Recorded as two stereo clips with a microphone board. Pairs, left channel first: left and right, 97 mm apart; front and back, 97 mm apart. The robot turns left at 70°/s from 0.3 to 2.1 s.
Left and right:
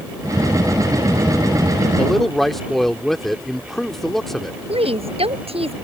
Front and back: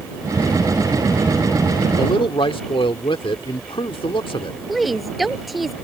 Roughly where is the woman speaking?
Right.